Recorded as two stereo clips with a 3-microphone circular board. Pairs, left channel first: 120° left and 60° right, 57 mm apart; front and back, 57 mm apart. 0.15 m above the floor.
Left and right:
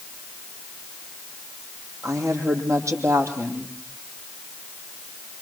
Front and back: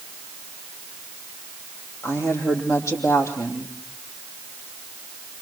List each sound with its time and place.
2.0 s a woman speaking: 30° right, 6 m